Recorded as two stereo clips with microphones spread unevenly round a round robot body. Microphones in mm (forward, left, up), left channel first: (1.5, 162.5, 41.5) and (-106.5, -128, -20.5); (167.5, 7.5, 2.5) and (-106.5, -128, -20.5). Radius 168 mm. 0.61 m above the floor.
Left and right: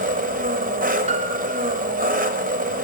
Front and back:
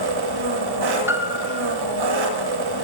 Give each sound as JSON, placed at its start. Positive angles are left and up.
{"t": 0.0, "sound": "an engine running", "azimuth_deg": 180, "distance_m": 0.8}
{"t": 1.1, "sound": "a piano", "azimuth_deg": -85, "distance_m": 0.6}